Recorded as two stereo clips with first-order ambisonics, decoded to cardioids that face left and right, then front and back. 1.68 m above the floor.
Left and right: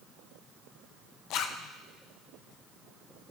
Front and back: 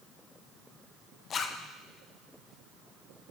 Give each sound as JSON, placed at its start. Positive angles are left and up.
{"t": 1.3, "sound": "a zipper", "azimuth_deg": 60, "distance_m": 0.7}